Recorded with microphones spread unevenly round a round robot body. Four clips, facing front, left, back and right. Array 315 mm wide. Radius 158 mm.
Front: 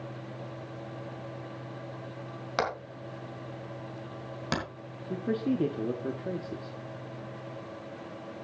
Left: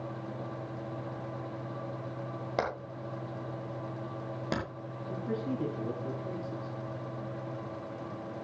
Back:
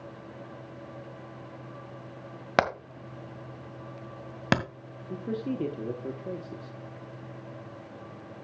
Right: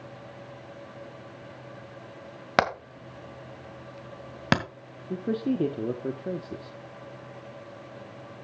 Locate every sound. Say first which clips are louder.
2.6 s hammering: right 9 dB, back 5 dB; 105° right, 2 m
5.1 s a man speaking: right 7 dB, front 3 dB; 60° right, 1.1 m